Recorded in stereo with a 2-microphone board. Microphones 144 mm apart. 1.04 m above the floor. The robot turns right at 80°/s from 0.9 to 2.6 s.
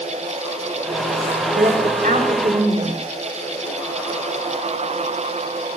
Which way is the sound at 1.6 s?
125° right.